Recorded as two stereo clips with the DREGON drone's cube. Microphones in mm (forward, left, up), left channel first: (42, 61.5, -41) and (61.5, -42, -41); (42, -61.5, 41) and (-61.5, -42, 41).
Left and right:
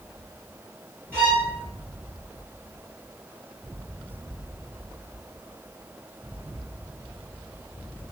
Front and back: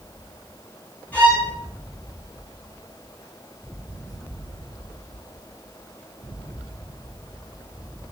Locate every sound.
1.1 s a violin: 55° right, 1.7 m